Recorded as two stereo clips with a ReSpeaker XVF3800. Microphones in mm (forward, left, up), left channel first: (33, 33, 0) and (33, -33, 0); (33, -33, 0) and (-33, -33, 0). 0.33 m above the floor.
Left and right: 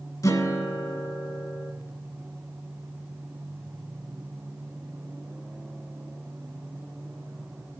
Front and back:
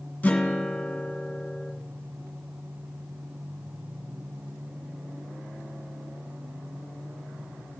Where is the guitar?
65° left, 2 m.